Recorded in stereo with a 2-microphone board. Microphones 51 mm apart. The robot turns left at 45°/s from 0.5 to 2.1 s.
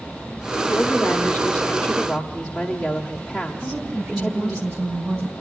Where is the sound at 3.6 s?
55° right (ahead or behind), 4.5 m.